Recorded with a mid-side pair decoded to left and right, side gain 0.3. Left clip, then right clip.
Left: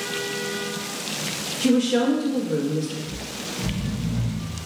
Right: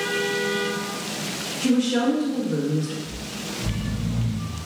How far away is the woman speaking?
About 1.5 m.